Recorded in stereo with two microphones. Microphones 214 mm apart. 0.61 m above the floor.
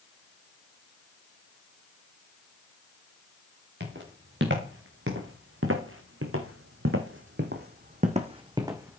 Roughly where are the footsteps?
Right.